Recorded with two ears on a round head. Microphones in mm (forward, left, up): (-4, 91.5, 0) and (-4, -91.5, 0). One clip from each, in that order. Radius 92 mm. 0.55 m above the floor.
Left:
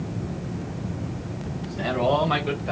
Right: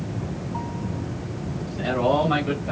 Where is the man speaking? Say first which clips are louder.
Right 1 dB; 15° left (ahead or behind), 2.5 m; by 2.7 s 25° left (ahead or behind), 2.5 m.